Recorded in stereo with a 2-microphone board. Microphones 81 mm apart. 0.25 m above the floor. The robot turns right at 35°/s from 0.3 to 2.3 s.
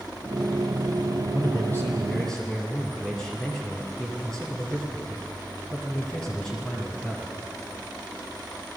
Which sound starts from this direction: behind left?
A man speaking, at 1.3 s.